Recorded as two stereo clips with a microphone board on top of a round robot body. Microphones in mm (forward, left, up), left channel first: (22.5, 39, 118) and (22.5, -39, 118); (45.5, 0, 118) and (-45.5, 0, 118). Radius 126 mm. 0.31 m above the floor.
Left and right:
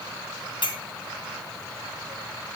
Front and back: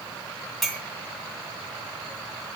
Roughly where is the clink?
Left.